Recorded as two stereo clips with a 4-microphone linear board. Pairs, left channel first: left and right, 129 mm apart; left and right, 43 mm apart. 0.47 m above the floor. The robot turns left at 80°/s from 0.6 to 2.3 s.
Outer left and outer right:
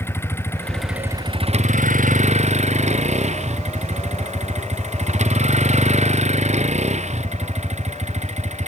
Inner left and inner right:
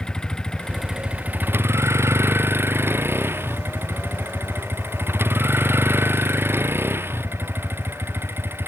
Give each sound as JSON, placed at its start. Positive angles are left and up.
{"t": 0.0, "sound": "a vehicle", "azimuth_deg": 20}